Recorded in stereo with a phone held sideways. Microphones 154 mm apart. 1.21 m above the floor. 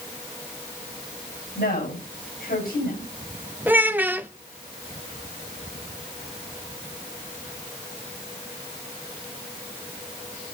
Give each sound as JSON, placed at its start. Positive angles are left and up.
{"t": 1.6, "sound": "a woman speaking", "side_deg": 90, "distance_m": 7.0}
{"t": 3.7, "sound": "a child speaking", "side_deg": -10, "distance_m": 0.5}